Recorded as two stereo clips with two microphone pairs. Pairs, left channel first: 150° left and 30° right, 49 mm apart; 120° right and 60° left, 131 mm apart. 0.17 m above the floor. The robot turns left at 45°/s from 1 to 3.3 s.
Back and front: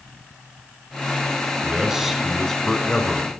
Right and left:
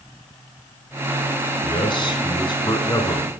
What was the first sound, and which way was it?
A man speaking, 85° right.